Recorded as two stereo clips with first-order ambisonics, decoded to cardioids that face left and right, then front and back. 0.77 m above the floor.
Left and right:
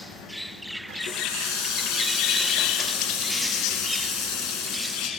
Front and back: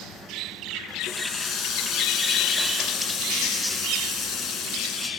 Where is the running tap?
60° left, 6.5 m.